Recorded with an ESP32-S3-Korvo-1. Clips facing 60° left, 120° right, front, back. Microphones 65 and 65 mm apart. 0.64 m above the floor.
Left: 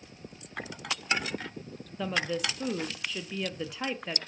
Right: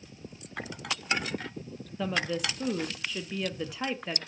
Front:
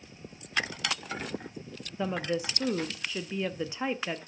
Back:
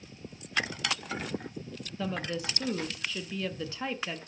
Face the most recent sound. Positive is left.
turn(degrees=-30)